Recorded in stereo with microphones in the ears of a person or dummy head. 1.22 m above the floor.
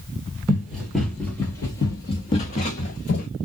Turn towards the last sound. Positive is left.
turn(degrees=45)  # may be behind; listen again after turning